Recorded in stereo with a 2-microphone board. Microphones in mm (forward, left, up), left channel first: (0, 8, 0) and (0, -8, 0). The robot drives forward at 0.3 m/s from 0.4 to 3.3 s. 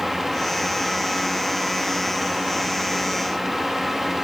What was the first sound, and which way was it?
Only background noise.